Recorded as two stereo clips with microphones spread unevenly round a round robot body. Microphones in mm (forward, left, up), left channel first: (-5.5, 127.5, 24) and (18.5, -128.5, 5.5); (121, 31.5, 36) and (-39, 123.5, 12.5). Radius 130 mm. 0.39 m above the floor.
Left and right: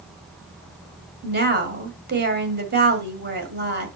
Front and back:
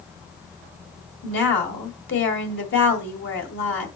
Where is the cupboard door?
I don't hear a cupboard door.